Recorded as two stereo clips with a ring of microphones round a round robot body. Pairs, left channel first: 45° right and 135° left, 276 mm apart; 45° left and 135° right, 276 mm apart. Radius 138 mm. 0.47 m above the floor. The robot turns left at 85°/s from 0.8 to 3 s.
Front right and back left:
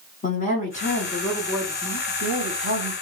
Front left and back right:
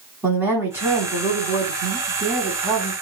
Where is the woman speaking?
60° right, 1.4 m; by 2.9 s 120° left, 1.4 m.